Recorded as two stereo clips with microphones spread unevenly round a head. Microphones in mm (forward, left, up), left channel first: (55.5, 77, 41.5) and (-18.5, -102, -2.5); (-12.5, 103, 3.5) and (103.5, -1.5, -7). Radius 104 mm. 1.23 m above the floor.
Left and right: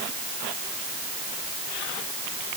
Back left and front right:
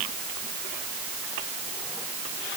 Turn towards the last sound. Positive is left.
No sound to turn to.